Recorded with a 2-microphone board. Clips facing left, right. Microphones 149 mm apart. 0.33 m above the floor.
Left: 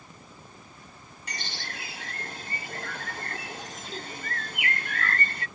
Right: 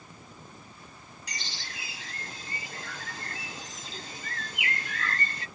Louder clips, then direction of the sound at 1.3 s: Left 5 dB; 55° left (ahead or behind).